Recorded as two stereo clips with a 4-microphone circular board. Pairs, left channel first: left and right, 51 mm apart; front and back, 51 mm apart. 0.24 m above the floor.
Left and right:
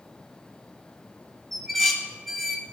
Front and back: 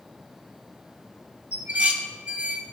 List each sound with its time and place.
1.5 s dishes clattering: 175° left, 0.8 m